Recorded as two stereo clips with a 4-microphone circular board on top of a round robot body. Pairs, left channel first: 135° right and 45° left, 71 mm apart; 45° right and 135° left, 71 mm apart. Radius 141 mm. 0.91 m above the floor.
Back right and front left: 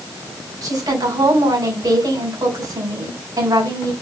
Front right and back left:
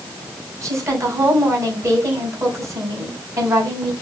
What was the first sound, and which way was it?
A woman speaking, 85° left.